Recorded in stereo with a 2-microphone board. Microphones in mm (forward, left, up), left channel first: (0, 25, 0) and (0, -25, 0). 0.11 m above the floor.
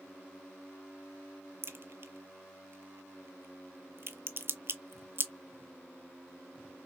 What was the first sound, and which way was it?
A crack, 50° right (ahead or behind).